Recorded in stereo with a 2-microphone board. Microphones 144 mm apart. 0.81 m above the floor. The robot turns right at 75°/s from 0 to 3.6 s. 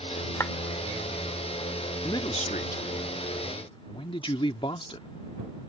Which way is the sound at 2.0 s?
25° left.